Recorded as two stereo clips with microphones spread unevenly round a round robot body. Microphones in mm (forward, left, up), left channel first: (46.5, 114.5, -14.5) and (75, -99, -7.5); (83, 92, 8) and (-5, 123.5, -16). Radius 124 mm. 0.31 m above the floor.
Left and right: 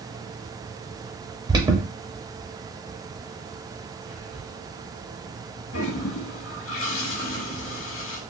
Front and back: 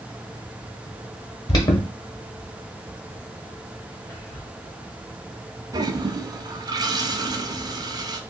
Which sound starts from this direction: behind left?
A toilet flushing, at 5.7 s.